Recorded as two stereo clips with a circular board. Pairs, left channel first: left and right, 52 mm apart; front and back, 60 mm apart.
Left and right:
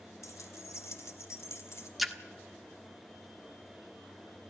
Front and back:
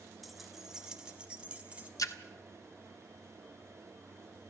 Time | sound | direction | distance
0.2 | keys jangling | 90° left | 1.4 m
2.0 | a splash | straight ahead | 1.3 m